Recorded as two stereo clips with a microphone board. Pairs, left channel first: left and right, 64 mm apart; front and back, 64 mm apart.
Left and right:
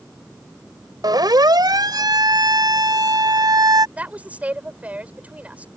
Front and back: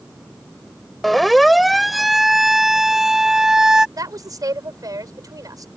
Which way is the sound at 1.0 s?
90° right.